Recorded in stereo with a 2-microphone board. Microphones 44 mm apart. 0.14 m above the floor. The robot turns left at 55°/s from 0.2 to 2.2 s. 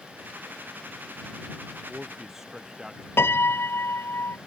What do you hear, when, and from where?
1.9 s a man speaking: 10° left (ahead or behind); by 3.1 s 10° right (ahead or behind)
3.2 s a piano: 70° left (ahead or behind)